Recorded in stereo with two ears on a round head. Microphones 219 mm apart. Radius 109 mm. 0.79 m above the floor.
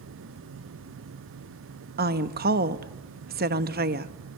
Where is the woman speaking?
40° right (ahead or behind), 1.0 m.